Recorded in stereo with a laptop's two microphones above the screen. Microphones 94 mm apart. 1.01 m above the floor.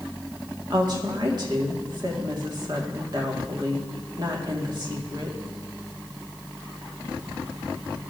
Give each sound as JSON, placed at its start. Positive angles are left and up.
{"t": 0.7, "sound": "a woman speaking", "side_deg": -50, "distance_m": 1.8}